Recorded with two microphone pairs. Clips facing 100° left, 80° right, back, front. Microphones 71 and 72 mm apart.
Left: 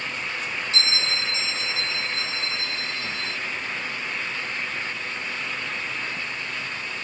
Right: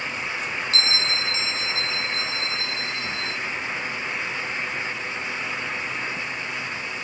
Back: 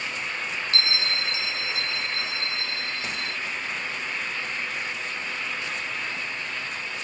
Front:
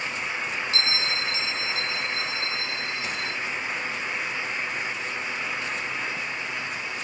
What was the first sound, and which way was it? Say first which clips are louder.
A bell: right 1 dB, back 1 dB; 65° right.